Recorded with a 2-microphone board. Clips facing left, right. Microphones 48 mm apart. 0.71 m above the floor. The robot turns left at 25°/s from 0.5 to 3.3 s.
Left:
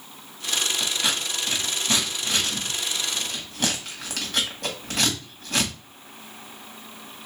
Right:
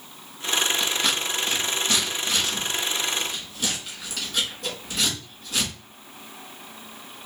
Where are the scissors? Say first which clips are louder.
Right 2 dB; 5° left (ahead or behind), 1.8 m; by 5.7 s 65° left (ahead or behind), 1.8 m.